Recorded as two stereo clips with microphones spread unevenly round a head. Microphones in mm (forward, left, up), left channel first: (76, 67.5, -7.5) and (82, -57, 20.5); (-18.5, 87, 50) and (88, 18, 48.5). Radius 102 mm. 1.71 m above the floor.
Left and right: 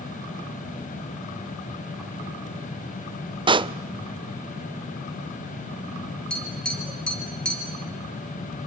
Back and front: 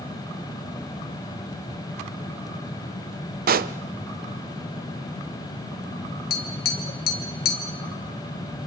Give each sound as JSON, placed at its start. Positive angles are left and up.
{"t": 3.5, "sound": "a pop", "azimuth_deg": -30, "distance_m": 0.7}
{"t": 6.3, "sound": "tapping", "azimuth_deg": -175, "distance_m": 1.4}